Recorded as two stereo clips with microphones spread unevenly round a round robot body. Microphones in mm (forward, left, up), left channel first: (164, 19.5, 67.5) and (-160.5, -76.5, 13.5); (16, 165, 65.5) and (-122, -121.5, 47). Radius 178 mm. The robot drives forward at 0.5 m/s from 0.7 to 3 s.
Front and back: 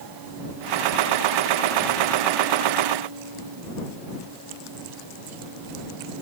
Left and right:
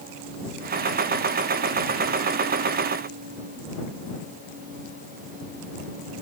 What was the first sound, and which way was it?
Only background noise.